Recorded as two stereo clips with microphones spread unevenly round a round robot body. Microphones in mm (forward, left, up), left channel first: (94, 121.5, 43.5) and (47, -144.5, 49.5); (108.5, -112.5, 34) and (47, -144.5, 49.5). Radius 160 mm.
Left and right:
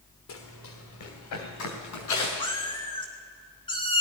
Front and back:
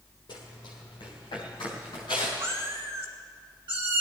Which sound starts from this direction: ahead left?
Running footsteps, at 0.3 s.